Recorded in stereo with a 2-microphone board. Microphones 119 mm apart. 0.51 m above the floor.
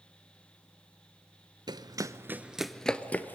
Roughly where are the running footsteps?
Right.